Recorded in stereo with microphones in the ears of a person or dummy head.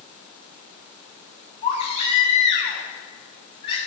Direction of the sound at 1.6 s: 35° left (ahead or behind).